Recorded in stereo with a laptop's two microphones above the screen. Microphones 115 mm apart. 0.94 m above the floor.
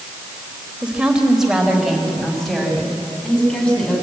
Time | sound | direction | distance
0.8 | a woman speaking | 10° right (ahead or behind) | 3 m